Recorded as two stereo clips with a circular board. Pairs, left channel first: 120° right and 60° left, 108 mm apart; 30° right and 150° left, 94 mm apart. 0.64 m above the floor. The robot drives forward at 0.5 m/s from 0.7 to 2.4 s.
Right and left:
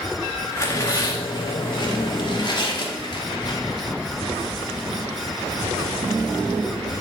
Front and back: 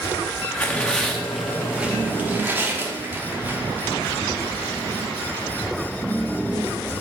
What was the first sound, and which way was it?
Tearing paper, 90° right.